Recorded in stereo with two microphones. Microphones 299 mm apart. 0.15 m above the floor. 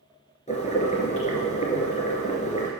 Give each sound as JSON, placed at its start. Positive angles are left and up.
{"t": 0.5, "sound": "boiling", "side_deg": 25, "distance_m": 3.0}